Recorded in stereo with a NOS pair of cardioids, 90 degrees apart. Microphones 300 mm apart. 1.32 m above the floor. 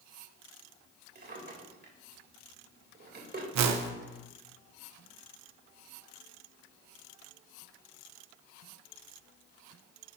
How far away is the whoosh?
About 1.2 m.